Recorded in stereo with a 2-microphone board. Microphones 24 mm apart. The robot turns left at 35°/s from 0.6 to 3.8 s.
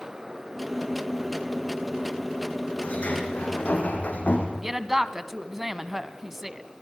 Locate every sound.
2.8 s a sliding door: 120° left, 4.5 m; by 4.5 s 85° left, 4.5 m
4.6 s a woman speaking: 10° right (ahead or behind), 1.1 m